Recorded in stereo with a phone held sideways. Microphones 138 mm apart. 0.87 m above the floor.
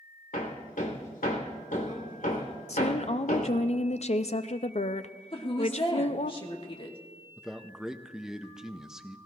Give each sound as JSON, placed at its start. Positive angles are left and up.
{"t": 0.3, "sound": "hammering", "side_deg": 75, "distance_m": 1.6}
{"t": 2.7, "sound": "a woman speaking", "side_deg": 50, "distance_m": 0.5}
{"t": 5.3, "sound": "a woman speaking", "side_deg": 40, "distance_m": 1.7}
{"t": 7.4, "sound": "a man speaking", "side_deg": -5, "distance_m": 0.6}